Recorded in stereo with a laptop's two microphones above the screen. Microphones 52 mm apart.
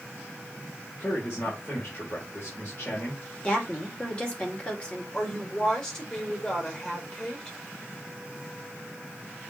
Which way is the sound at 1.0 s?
35° left (ahead or behind).